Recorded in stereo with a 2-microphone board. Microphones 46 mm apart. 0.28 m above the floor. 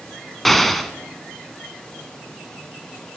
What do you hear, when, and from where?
0.5 s an explosion: centre (ahead or behind), 1.0 m